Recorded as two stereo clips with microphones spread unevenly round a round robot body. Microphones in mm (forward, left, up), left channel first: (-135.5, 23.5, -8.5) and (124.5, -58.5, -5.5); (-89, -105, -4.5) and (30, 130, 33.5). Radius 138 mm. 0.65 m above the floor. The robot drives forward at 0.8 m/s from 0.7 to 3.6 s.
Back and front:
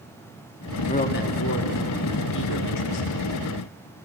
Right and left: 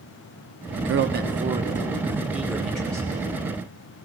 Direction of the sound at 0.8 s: 95° left.